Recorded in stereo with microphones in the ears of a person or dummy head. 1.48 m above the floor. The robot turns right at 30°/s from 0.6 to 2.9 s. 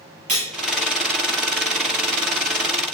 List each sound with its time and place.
0.3 s cutlery clinking: 35° right (ahead or behind), 0.8 m